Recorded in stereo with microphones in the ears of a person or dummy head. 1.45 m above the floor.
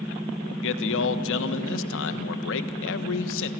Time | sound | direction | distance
0.4 | a man speaking | 75° left (ahead or behind) | 1.3 m